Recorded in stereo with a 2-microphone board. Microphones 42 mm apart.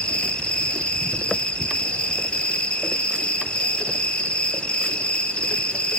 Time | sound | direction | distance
0.0 | an insect | 25° left (ahead or behind) | 2.5 m